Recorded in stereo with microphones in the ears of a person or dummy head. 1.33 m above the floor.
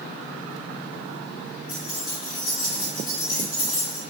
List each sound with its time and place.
1.7 s keys jangling: 45° left (ahead or behind), 0.7 m